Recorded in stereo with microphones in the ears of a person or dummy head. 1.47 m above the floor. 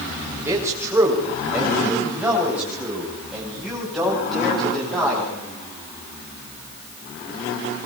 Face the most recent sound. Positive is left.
turn(degrees=5)  # may be behind; listen again after turning